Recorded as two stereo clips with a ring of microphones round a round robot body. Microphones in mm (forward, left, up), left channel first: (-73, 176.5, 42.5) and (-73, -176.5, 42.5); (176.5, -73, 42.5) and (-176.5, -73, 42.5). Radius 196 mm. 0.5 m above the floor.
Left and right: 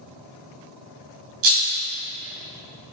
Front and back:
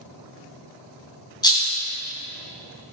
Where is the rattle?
80° right, 1.9 m.